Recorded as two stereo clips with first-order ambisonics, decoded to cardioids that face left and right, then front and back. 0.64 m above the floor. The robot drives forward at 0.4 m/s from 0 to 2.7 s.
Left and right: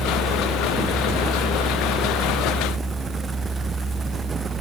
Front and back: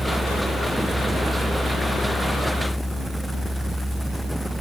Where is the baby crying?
I don't hear a baby crying.